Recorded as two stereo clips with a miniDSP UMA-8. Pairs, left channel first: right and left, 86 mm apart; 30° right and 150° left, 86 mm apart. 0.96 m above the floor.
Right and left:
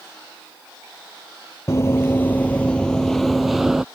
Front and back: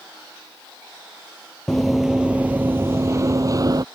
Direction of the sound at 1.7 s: 115° right.